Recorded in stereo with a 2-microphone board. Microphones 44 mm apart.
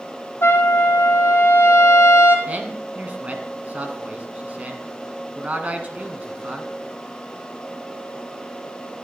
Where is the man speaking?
35° right (ahead or behind), 1.4 m.